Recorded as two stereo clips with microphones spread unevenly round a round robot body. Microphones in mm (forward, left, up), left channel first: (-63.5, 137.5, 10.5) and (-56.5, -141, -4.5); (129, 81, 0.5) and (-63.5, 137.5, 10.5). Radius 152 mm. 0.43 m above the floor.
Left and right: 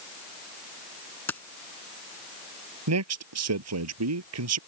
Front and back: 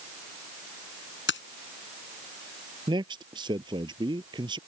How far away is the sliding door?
No sliding door in this recording.